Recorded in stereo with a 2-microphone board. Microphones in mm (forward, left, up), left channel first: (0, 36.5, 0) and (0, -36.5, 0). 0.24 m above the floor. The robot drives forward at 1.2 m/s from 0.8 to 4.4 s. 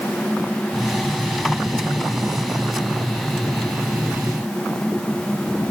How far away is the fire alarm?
No fire alarm in this recording.